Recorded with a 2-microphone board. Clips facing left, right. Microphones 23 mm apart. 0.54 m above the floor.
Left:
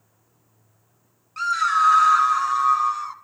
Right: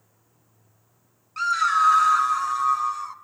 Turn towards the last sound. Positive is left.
turn(degrees=20)  # may be behind; listen again after turning